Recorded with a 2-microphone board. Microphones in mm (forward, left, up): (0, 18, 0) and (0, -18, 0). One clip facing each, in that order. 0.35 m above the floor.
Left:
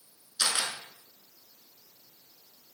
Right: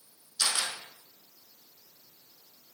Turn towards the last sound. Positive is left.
turn(degrees=30)  # may be behind; listen again after turning